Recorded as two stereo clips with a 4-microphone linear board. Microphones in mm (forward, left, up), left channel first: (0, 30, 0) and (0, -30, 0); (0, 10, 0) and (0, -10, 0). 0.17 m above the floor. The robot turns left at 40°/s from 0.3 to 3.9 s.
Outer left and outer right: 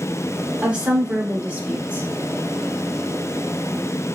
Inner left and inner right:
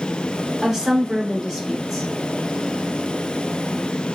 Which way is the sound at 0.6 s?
25° right (ahead or behind).